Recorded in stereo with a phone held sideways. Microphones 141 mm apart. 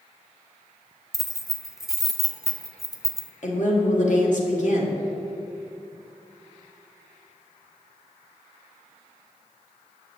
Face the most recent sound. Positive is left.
turn(degrees=60)  # may be behind; listen again after turning